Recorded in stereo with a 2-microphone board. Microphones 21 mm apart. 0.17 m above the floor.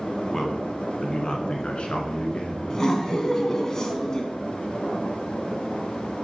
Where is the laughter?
30° left (ahead or behind), 1.3 m.